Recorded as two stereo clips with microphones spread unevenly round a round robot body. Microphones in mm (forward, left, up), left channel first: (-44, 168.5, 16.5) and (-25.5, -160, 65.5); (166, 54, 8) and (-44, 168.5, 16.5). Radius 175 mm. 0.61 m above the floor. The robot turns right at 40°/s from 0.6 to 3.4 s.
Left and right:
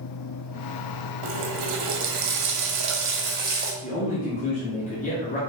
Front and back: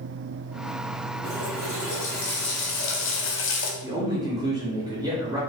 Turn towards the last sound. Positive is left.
turn(degrees=85)